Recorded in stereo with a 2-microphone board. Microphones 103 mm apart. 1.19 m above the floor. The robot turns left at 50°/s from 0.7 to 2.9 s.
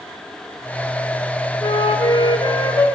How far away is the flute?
About 0.5 m.